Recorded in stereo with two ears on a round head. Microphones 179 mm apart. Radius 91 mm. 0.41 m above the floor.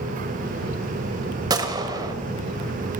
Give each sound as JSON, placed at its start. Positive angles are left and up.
{"t": 1.5, "sound": "a gunshot", "side_deg": -20, "distance_m": 1.3}